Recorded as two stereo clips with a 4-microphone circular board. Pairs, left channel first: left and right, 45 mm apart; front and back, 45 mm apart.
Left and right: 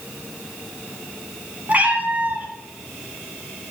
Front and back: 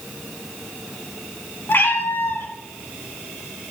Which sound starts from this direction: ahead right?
A cat meowing, at 1.7 s.